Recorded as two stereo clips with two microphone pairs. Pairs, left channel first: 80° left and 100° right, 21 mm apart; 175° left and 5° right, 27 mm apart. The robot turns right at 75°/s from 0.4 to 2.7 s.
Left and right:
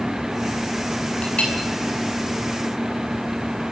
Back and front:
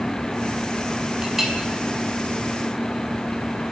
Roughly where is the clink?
Ahead left.